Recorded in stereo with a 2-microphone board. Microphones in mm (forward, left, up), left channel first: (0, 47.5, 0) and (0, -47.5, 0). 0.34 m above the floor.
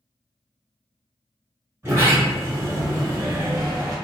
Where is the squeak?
I don't hear a squeak.